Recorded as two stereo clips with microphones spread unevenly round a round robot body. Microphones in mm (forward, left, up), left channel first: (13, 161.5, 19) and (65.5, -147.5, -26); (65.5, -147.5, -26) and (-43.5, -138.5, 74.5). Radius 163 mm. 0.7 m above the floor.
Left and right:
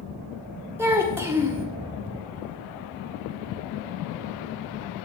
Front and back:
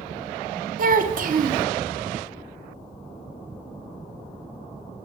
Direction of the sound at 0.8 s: 160° right.